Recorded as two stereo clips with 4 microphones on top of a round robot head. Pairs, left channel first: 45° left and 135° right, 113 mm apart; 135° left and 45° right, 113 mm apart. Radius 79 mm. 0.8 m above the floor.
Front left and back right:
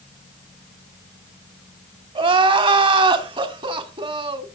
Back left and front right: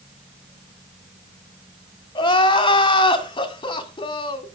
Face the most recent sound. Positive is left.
turn(degrees=180)